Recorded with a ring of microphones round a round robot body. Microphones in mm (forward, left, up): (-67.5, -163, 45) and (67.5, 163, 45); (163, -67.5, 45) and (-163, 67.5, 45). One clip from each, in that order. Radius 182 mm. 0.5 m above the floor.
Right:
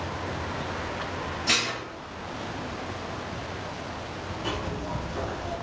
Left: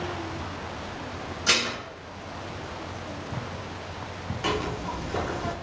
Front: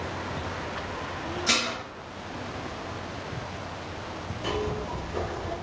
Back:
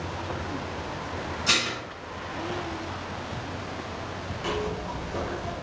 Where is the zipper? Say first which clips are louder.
Left 5 dB, even; 80° left, 0.6 m.